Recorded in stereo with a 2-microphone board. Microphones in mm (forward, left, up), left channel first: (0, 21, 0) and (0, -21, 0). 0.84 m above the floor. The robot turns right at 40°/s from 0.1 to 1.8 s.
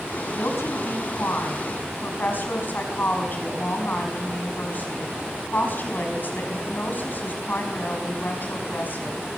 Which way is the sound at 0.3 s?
75° left.